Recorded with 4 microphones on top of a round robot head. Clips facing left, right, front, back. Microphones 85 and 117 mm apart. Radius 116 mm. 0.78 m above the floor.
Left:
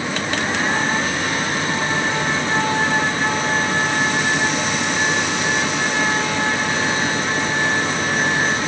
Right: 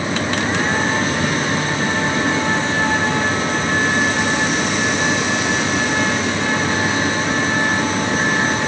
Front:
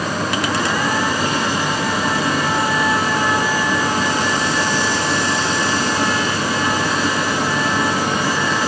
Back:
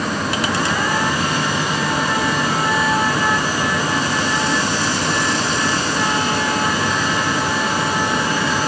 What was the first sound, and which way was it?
Only background noise.